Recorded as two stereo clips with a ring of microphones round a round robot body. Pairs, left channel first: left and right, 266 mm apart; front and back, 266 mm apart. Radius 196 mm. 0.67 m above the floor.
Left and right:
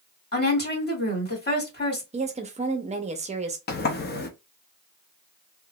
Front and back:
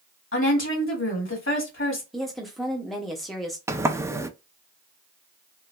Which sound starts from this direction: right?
A woman speaking, at 2.1 s.